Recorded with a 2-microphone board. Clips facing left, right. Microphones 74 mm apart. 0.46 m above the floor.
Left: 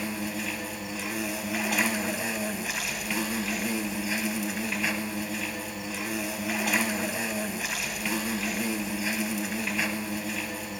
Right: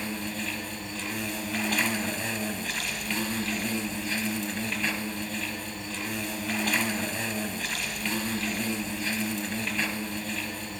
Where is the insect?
10° left (ahead or behind), 0.7 m.